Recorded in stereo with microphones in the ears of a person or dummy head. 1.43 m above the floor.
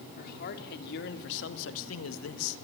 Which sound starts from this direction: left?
A man speaking, at 0.2 s.